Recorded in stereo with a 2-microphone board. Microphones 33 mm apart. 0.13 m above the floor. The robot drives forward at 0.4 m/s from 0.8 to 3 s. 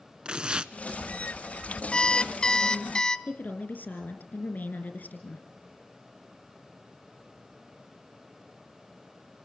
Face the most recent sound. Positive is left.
turn(degrees=65)  # may be behind; listen again after turning